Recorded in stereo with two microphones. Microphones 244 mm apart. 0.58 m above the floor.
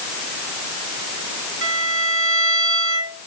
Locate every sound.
1.6 s a violin: 60° right (ahead or behind), 2.5 m